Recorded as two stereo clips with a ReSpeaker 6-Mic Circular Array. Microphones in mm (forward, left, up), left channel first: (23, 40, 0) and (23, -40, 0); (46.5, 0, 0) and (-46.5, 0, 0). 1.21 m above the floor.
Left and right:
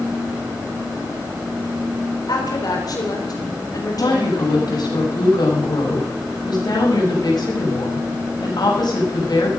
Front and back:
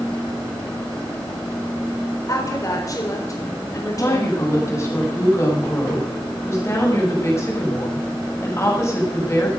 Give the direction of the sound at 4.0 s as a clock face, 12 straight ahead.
10 o'clock.